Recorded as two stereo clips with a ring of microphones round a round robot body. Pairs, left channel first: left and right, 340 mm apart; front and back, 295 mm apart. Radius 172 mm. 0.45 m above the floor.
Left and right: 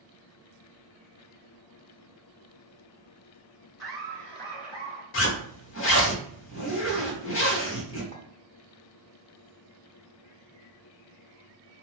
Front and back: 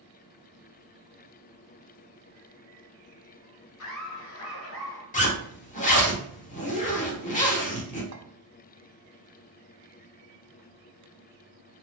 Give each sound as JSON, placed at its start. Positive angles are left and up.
{"t": 3.8, "sound": "laughter", "azimuth_deg": 0, "distance_m": 2.5}
{"t": 5.1, "sound": "a zipper", "azimuth_deg": 55, "distance_m": 1.2}
{"t": 8.1, "sound": "a clink", "azimuth_deg": 155, "distance_m": 0.7}